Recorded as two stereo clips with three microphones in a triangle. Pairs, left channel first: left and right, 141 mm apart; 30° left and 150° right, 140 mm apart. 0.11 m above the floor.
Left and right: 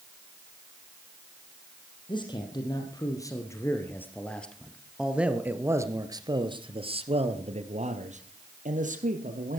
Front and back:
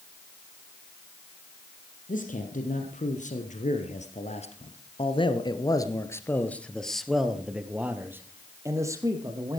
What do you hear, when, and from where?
2.1 s a man speaking: 35° left, 3.5 m; by 9.6 s 90° right, 4 m